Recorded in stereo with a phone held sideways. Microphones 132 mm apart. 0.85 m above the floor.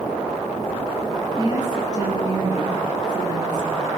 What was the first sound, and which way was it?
A woman speaking, 30° right (ahead or behind).